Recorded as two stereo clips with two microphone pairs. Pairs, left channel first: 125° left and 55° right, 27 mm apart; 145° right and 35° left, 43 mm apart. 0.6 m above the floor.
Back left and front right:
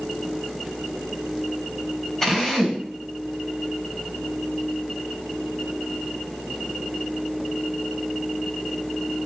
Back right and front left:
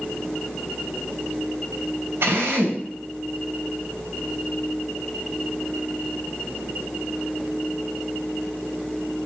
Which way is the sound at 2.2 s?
50° left.